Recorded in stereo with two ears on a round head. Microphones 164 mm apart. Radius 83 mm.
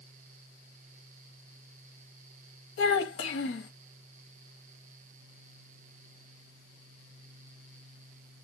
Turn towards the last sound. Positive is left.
turn(degrees=75)  # may be behind; listen again after turning